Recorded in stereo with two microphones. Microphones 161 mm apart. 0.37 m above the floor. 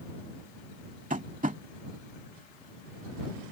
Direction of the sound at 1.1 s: 55° right (ahead or behind).